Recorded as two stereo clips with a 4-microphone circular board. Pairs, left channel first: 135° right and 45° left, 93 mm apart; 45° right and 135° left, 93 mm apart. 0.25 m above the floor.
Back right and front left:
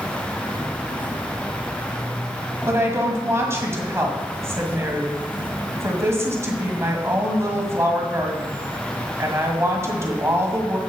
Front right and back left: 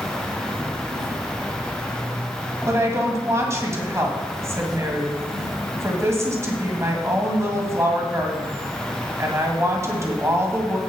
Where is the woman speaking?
90° left, 1.9 m.